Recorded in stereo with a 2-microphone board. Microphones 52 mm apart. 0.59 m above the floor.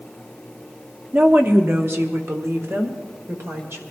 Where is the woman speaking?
35° right (ahead or behind), 1.1 m; by 3.8 s 55° right (ahead or behind), 2.5 m.